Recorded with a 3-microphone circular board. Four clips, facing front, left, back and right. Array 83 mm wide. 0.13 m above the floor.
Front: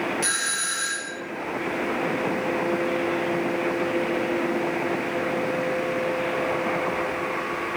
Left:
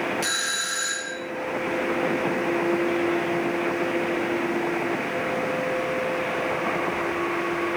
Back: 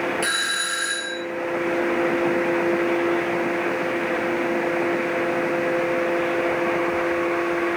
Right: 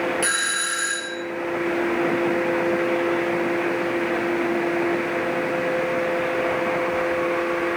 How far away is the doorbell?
About 2 m.